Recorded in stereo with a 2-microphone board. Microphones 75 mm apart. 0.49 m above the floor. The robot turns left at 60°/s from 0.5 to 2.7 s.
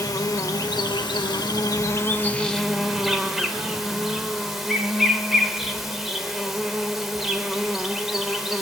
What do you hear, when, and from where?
0.0 s an insect: 130° left, 0.7 m; by 8.6 s 5° right, 0.7 m